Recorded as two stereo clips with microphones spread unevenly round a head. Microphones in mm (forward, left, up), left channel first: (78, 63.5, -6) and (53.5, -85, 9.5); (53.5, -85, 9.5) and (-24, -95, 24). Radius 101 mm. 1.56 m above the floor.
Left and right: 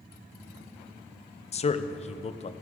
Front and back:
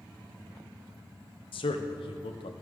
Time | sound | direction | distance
1.5 | a man speaking | 30° left | 0.6 m